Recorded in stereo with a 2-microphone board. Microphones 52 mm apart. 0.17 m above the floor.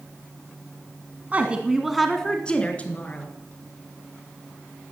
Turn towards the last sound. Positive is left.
turn(degrees=35)  # may be behind; listen again after turning